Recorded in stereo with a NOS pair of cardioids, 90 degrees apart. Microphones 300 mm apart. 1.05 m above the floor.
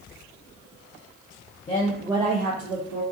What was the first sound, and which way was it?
A woman speaking, 25° left.